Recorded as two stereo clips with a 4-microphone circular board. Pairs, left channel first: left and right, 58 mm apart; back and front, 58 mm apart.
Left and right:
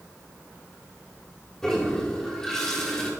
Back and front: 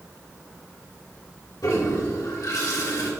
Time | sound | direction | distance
1.6 | a toilet flushing | 170° left | 1.7 m